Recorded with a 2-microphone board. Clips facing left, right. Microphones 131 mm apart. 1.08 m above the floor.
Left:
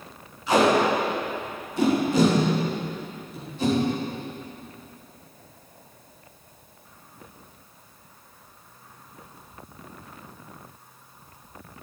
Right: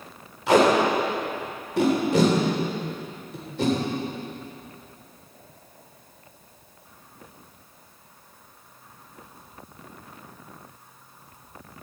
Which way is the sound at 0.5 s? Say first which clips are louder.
Right 1 dB; 85° right.